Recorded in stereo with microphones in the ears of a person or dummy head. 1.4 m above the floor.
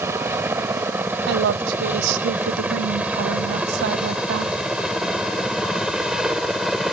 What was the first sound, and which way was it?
A helicopter, 5° right (ahead or behind).